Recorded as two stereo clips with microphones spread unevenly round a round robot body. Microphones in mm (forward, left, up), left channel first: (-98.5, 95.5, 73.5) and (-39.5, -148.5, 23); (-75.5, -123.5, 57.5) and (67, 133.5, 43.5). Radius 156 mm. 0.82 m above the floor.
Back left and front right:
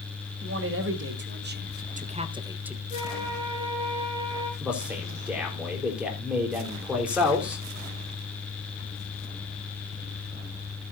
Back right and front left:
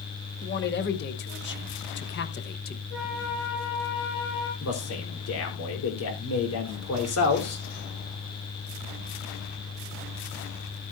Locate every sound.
0.4 s a man speaking: 65° right, 2 m; by 2.8 s 140° right, 1.1 m
2.9 s a flute: 145° right, 6.5 m
4.6 s a man speaking: 160° right, 4 m